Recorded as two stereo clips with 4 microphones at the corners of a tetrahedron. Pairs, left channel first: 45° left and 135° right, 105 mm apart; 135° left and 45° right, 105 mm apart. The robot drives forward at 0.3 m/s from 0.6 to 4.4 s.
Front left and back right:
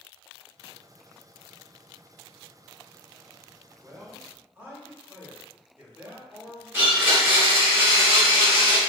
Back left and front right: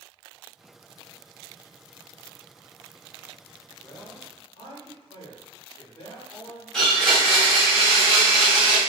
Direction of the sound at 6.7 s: 145° right.